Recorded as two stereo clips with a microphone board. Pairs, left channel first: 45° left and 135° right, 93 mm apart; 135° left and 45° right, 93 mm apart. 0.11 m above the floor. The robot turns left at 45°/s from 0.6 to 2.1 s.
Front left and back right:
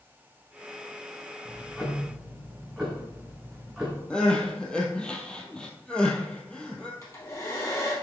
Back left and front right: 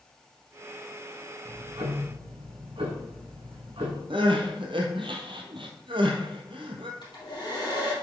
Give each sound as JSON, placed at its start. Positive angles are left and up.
{"t": 1.4, "sound": "ticking", "azimuth_deg": -20, "distance_m": 2.0}
{"t": 4.1, "sound": "crying", "azimuth_deg": -35, "distance_m": 1.3}
{"t": 7.0, "sound": "a hair dryer", "azimuth_deg": 100, "distance_m": 3.0}